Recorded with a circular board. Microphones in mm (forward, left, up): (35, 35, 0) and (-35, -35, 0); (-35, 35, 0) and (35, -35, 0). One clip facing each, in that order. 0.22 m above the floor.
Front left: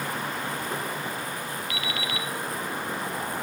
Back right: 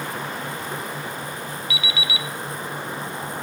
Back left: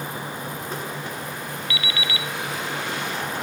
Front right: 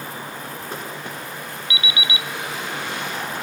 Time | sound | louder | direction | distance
1.7 | an alarm clock | back right 3 dB, front right 3 dB | 20° left | 1.2 m